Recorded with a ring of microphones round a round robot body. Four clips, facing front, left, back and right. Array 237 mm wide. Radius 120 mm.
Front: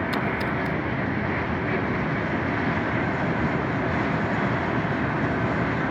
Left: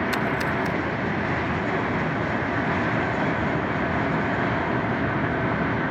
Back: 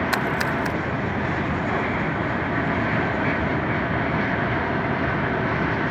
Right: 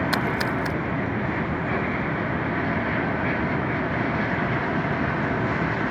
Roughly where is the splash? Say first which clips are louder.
Even, back 2 dB; behind right.